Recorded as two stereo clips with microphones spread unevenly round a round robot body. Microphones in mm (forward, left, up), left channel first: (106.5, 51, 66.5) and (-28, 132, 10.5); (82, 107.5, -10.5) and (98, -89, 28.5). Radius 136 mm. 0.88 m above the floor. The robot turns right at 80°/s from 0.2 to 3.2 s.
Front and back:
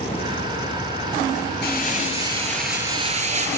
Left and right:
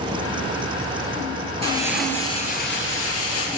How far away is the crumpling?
About 5.5 m.